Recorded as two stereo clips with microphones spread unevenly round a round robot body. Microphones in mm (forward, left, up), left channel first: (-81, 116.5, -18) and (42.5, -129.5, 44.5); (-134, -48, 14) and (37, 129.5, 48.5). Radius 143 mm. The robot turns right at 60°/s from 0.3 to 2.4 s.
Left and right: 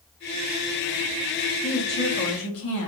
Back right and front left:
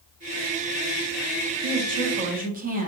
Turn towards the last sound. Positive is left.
turn(degrees=105)